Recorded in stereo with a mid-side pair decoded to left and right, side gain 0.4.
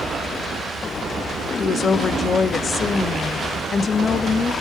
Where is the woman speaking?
50° left, 1.1 m.